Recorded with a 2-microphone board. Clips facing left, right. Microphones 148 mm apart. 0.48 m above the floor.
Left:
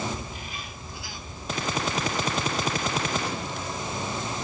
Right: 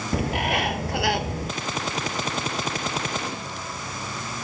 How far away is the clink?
No clink in this recording.